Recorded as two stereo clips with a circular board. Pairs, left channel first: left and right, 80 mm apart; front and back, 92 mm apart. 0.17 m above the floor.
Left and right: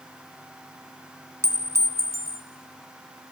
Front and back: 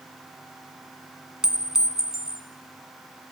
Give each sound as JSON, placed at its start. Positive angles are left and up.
{"t": 1.4, "sound": "a clink", "azimuth_deg": -100, "distance_m": 1.2}